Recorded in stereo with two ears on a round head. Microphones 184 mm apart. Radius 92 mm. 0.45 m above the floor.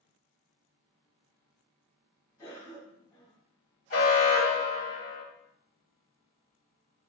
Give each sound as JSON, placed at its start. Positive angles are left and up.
{"t": 2.4, "sound": "a cough", "side_deg": 15, "distance_m": 0.9}
{"t": 3.9, "sound": "an alarm", "side_deg": 45, "distance_m": 1.6}